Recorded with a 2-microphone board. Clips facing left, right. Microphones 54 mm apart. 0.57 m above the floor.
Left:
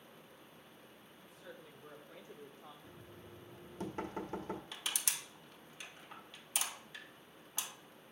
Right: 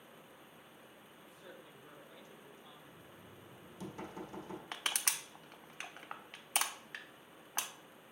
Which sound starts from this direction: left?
Knocking, at 2.8 s.